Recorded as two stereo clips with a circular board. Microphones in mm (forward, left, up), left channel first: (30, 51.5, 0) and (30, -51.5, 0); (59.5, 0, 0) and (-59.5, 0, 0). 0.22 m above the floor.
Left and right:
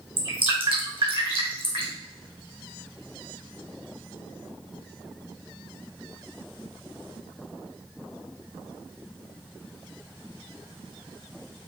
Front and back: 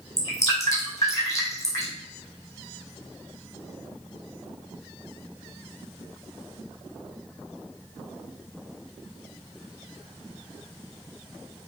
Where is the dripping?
65° right, 3 m.